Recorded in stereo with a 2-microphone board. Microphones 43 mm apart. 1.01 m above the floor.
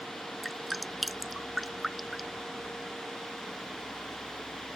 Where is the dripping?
Centre (ahead or behind).